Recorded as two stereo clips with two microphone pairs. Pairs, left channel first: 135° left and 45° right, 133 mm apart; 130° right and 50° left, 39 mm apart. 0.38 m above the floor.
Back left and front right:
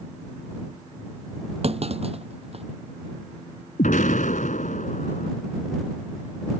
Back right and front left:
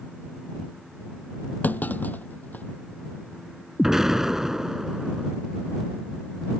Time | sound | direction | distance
1.6 | a clunk | 85° right | ?
3.8 | an explosion | 130° left | ?